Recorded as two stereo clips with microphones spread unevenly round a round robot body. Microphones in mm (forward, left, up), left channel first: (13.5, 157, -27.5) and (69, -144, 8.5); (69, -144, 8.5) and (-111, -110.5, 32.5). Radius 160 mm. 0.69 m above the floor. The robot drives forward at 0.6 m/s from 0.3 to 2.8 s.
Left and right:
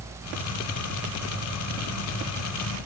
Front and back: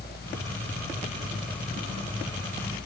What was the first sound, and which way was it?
Only background noise.